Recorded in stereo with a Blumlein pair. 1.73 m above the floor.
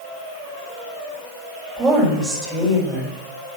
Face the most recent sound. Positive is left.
turn(degrees=-15)